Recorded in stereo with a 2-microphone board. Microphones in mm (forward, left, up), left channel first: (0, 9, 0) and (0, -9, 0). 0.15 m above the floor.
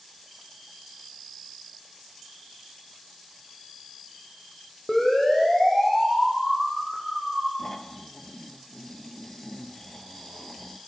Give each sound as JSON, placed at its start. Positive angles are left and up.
{"t": 4.9, "sound": "a siren", "side_deg": 30, "distance_m": 7.0}
{"t": 7.6, "sound": "snoring", "side_deg": 25, "distance_m": 2.0}